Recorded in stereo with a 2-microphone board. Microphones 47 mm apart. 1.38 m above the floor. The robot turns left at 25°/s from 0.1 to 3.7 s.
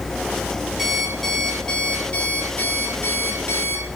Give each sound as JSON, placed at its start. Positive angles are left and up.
{"t": 0.8, "sound": "an alarm clock", "azimuth_deg": -175, "distance_m": 4.5}